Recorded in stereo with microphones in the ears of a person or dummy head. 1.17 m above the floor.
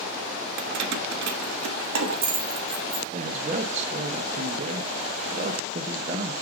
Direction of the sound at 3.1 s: 35° right (ahead or behind).